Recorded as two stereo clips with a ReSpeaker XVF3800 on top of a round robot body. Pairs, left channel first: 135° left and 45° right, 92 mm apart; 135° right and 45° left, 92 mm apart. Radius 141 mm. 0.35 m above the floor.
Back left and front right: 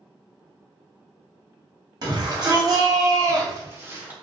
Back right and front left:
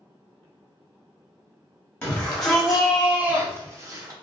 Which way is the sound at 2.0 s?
60° right.